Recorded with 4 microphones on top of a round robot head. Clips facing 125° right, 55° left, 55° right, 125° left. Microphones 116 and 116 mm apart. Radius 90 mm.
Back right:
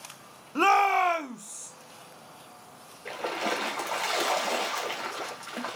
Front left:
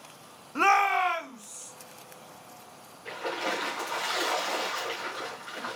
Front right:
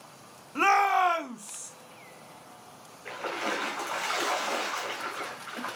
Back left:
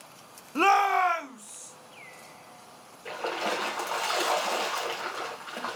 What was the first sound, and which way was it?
A shout, 165° left.